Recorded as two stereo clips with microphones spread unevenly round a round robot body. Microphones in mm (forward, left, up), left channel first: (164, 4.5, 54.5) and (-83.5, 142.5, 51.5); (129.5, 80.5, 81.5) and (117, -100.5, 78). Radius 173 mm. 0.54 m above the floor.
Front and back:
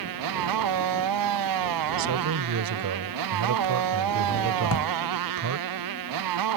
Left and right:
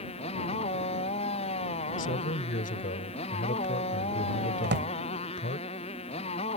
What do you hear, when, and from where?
0.0 s a motorcycle: 155° left
2.0 s a man speaking: 135° left
4.6 s a drawer: 65° right